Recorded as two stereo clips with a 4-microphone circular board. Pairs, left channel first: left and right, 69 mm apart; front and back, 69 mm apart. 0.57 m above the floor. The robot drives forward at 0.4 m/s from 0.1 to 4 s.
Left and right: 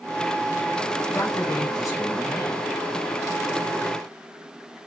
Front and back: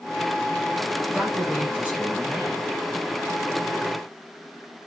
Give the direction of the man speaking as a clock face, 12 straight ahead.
8 o'clock.